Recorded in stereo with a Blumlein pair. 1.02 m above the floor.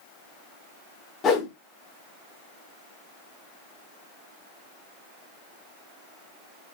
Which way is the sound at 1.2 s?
25° left.